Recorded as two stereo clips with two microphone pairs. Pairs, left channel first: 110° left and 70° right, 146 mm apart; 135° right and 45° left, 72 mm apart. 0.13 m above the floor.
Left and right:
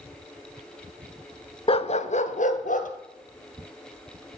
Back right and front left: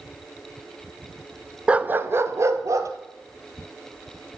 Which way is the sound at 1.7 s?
115° left.